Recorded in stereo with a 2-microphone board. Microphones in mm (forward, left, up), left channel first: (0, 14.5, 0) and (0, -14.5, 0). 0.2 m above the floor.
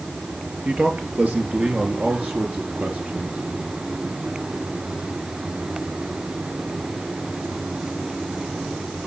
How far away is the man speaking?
About 4 m.